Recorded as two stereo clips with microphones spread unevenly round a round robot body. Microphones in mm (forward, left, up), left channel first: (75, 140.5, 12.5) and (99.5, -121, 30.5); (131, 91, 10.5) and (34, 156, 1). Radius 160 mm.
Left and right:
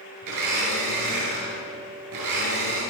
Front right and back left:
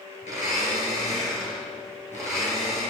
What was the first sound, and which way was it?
A blender, 95° right.